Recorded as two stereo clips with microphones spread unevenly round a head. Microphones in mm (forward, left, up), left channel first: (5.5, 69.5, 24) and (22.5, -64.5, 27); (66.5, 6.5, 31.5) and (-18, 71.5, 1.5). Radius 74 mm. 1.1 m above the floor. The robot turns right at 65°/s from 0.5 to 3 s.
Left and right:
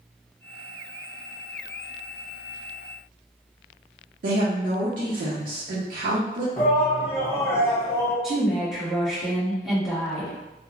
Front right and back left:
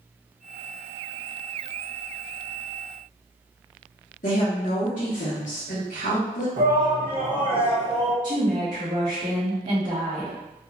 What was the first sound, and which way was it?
A woman speaking, 70° right.